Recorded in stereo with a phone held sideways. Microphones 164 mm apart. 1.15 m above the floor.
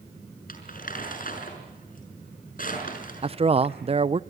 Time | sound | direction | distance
0.5 | crumpling | 60° left (ahead or behind) | 5.5 m
3.2 | a man speaking | 35° right (ahead or behind) | 0.6 m